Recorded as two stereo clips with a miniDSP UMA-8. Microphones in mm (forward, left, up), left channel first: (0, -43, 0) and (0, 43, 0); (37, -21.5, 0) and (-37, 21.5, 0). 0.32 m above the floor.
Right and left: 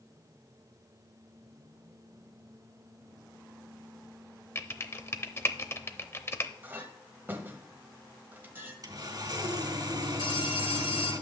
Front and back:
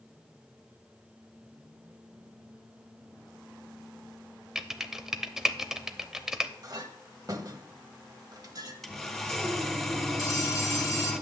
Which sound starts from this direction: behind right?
Typing on a keyboard, at 4.5 s.